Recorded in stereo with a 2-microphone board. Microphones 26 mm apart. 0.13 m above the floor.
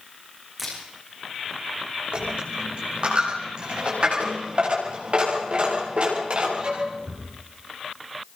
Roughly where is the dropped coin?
Right.